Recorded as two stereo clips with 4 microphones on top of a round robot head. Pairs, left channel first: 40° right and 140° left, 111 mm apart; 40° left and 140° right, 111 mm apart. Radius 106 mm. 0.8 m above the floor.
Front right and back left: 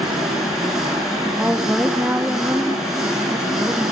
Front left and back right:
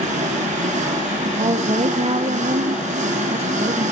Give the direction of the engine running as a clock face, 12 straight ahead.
4 o'clock.